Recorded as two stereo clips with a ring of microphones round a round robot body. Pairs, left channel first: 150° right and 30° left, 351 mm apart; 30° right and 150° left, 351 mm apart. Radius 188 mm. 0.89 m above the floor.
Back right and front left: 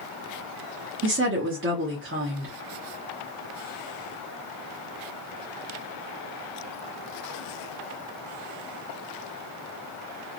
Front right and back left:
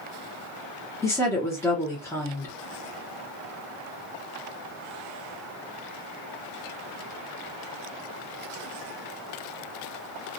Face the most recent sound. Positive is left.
turn(degrees=45)